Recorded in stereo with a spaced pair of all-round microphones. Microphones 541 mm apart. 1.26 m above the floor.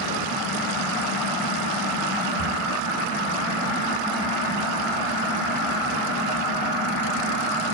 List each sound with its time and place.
2.4 s a cupboard door: 35° left (ahead or behind), 5.5 m